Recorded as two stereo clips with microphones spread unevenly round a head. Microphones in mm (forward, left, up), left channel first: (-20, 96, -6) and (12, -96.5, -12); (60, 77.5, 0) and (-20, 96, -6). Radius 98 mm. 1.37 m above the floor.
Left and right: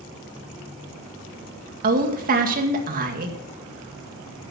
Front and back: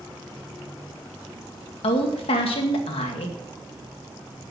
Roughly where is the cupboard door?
I don't hear a cupboard door.